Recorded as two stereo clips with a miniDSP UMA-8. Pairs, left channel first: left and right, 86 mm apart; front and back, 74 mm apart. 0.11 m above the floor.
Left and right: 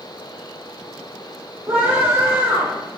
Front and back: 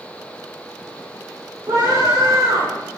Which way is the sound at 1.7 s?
150° right.